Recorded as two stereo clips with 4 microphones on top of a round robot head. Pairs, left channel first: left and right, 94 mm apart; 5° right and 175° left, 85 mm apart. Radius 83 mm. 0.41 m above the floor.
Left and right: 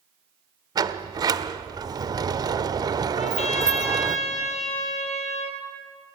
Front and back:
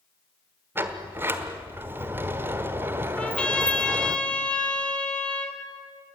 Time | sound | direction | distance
0.8 | a sliding door | 125° right | 1.1 m
3.2 | a trumpet | 70° left | 2.5 m